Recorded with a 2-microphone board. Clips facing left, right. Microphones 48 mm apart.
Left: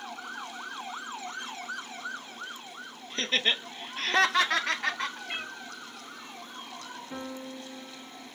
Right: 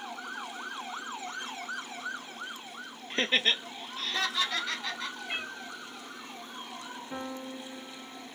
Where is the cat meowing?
Centre (ahead or behind), 1.4 m.